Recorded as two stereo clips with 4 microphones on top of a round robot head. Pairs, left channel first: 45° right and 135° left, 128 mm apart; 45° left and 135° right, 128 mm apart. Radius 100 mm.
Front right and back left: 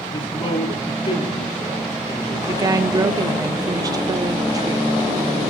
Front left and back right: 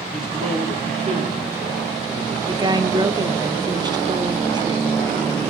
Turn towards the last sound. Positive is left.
turn(degrees=180)